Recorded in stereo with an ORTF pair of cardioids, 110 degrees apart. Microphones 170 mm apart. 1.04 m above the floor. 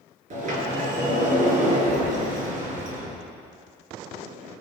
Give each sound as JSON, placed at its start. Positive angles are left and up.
{"t": 0.3, "sound": "a sliding door", "azimuth_deg": -50, "distance_m": 4.5}